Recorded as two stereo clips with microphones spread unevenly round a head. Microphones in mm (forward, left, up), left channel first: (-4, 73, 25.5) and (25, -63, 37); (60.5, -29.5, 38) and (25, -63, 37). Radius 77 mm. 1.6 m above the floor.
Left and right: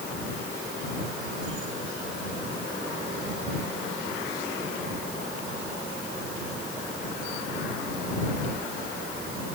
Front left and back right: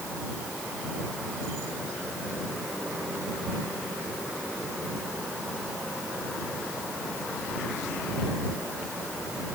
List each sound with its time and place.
Only background noise.